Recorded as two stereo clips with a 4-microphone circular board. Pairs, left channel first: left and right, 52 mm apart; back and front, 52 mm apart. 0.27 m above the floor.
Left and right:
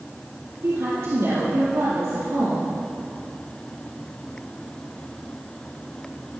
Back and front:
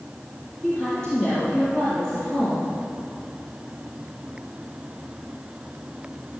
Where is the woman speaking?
105° right, 5.5 m.